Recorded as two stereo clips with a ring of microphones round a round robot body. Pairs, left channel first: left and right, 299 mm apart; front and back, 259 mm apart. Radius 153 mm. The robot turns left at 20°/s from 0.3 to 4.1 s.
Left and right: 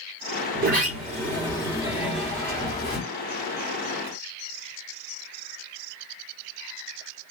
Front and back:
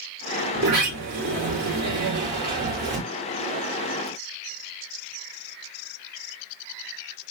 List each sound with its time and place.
0.5 s a sliding door: 145° right, 2.5 m; by 3.0 s 165° left, 2.5 m